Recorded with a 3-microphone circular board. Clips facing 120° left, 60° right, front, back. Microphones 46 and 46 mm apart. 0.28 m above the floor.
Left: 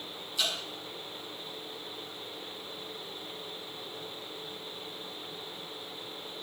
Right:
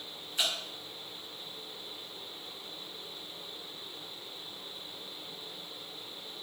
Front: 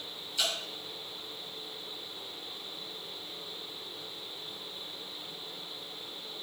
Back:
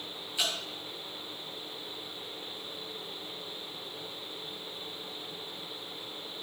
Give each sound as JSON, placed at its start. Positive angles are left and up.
{"t": 0.4, "sound": "dripping", "azimuth_deg": -110, "distance_m": 3.0}